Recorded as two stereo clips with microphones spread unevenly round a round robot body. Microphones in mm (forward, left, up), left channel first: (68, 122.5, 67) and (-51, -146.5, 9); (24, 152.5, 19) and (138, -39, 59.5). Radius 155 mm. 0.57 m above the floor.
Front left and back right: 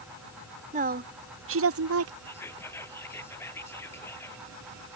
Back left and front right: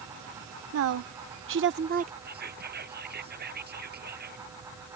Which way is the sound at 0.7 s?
60° right.